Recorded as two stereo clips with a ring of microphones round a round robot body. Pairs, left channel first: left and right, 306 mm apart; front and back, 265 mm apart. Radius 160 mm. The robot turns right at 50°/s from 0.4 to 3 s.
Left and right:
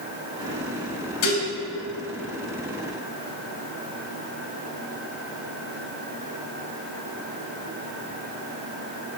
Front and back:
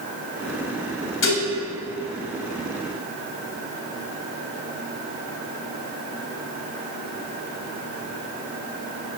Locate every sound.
1.2 s dishes clattering: 40° left, 3 m; by 1.5 s 55° left, 3 m